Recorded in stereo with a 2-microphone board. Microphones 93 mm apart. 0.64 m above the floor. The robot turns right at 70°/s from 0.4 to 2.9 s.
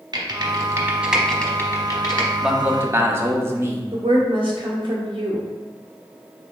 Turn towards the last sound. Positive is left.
turn(degrees=-65)  # may be behind; listen again after turning